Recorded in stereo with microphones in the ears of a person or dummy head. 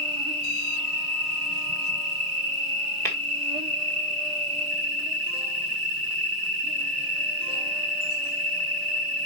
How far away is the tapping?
About 1.8 m.